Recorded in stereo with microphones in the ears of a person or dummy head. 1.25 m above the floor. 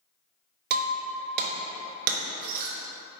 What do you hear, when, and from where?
0.7 s breaking glass: 60° right (ahead or behind), 0.6 m